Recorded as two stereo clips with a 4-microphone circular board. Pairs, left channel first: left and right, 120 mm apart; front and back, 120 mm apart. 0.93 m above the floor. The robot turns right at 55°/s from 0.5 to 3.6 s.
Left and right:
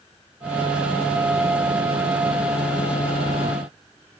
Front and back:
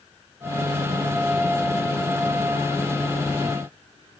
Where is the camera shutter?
I don't hear a camera shutter.